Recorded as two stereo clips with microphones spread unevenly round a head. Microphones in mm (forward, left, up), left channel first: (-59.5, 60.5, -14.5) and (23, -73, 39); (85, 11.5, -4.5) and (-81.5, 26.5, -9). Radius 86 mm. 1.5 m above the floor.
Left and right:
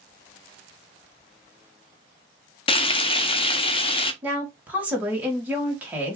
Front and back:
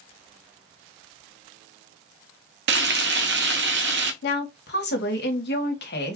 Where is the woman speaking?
20° left, 1.3 m.